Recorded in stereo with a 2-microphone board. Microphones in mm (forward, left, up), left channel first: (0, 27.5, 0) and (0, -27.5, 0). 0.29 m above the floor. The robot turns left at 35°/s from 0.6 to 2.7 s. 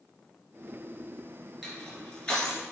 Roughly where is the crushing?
Centre.